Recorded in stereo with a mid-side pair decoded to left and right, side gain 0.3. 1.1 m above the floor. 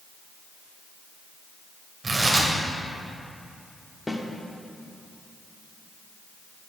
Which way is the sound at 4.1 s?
15° left.